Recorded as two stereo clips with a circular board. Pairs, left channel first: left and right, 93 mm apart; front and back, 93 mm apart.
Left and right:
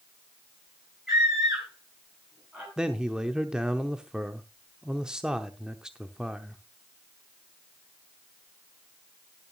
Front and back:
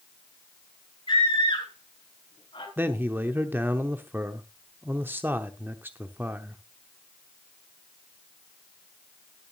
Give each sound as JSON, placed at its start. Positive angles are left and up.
{"t": 1.1, "sound": "a scream", "azimuth_deg": 0, "distance_m": 5.0}
{"t": 2.8, "sound": "a man speaking", "azimuth_deg": -160, "distance_m": 0.8}